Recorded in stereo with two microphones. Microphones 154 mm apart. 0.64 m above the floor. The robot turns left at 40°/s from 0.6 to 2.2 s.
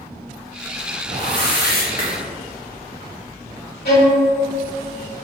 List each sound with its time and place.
1.1 s a whoosh: 100° left, 2.0 m; by 2.2 s 55° left, 2.0 m
3.9 s a violin: 75° left (ahead or behind), 1.8 m